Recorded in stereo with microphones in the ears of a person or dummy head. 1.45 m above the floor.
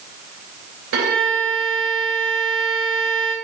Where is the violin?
70° right (ahead or behind), 3 m.